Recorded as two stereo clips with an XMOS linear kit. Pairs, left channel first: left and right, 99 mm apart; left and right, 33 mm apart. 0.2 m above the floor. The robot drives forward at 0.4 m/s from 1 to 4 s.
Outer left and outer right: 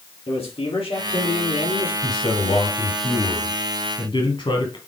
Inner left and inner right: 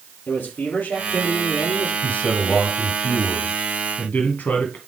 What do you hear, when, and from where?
0.3 s a man speaking: 75° left (ahead or behind), 5 m
2.0 s a man speaking: 50° left (ahead or behind), 3.5 m; by 4.8 s 60° left (ahead or behind), 3 m